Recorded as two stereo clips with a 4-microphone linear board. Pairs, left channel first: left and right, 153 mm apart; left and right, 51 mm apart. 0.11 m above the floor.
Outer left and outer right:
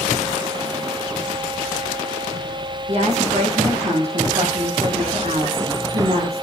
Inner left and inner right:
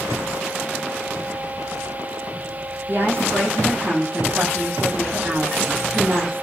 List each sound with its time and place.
2.9 s a woman speaking: 50° right (ahead or behind), 6.5 m